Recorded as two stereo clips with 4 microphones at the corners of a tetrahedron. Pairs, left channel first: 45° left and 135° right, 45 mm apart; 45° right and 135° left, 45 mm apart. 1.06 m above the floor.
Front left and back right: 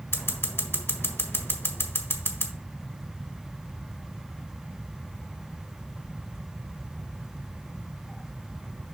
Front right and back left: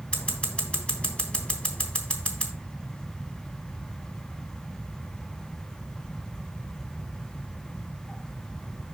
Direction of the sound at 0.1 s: 15° left.